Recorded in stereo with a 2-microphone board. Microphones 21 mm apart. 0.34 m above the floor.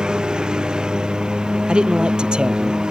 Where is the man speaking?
55° right (ahead or behind).